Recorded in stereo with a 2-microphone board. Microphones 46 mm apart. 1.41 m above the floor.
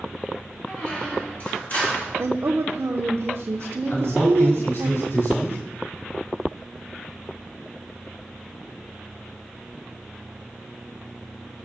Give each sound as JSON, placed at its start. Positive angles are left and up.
{"t": 0.7, "sound": "a squeak", "side_deg": 45, "distance_m": 3.0}
{"t": 2.2, "sound": "a woman speaking", "side_deg": -70, "distance_m": 0.6}
{"t": 3.9, "sound": "a man speaking", "side_deg": 75, "distance_m": 4.5}